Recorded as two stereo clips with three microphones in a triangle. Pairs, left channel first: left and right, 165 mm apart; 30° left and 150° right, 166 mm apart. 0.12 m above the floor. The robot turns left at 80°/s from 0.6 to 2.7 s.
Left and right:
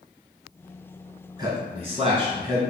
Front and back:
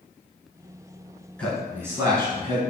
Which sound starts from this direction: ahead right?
A man speaking, at 1.4 s.